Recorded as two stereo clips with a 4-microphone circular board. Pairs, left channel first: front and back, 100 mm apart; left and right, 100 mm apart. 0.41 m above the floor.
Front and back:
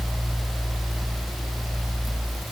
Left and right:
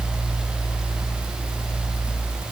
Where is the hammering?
No hammering in this recording.